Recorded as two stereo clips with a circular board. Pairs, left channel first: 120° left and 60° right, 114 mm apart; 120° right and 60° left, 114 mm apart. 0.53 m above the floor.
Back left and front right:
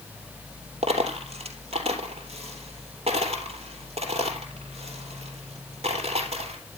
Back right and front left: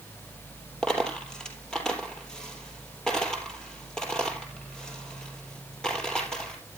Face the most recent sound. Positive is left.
turn(degrees=-35)